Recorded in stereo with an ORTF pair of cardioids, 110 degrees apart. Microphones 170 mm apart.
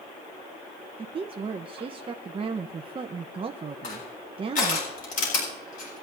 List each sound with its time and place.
1.0 s a woman speaking: 30° right, 1.0 m
3.8 s crushing: 50° left, 8.5 m